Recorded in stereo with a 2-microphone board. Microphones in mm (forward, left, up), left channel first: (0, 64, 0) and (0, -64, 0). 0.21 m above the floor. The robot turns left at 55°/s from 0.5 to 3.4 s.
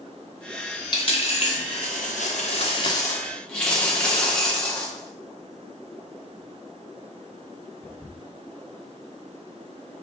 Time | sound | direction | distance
0.9 | a dropped coin | 35° left (ahead or behind) | 2.5 m